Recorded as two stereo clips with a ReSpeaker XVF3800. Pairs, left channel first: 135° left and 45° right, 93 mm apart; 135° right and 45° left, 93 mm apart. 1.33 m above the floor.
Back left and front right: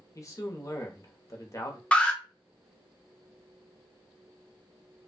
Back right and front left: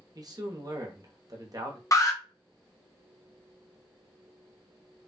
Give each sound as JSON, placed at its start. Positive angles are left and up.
{"t": 0.1, "sound": "a man speaking", "azimuth_deg": 85, "distance_m": 1.1}
{"t": 1.9, "sound": "an alarm", "azimuth_deg": -155, "distance_m": 0.8}